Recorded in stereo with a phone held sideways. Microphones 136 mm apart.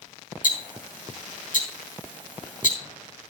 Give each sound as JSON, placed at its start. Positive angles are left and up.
{"t": 0.4, "sound": "ticking", "side_deg": 85, "distance_m": 4.5}